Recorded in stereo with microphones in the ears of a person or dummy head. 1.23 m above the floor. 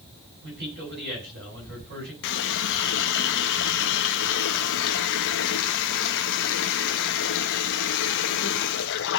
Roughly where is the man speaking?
Right.